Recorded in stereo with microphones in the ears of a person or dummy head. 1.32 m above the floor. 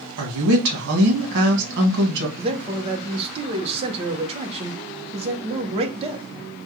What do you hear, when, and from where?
0.2 s a woman speaking: 65° right (ahead or behind), 1.4 m
2.4 s a man speaking: 35° right (ahead or behind), 0.7 m